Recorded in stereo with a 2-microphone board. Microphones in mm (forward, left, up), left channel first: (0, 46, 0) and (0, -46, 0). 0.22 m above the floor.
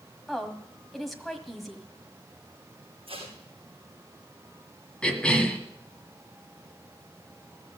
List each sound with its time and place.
0.3 s a woman speaking: centre (ahead or behind), 1.4 m
3.1 s tape being pulled: 70° right (ahead or behind), 4.5 m
5.0 s a cough: 10° left (ahead or behind), 1.7 m